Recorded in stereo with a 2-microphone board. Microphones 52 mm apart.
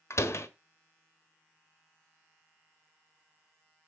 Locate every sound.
0.1 s a door slam: 60° left (ahead or behind), 1.4 m